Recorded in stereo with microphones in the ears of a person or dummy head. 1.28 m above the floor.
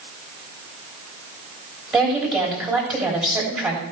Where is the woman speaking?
5° right (ahead or behind), 3 m.